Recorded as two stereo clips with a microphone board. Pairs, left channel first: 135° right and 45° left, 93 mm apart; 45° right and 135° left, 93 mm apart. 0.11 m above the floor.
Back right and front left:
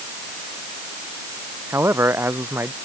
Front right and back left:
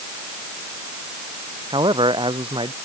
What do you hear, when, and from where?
1.7 s a man speaking: 105° left; by 2.7 s 110° left